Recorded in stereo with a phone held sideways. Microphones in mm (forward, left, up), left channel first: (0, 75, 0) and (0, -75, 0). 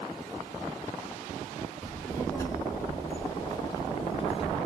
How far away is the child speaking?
About 1.8 m.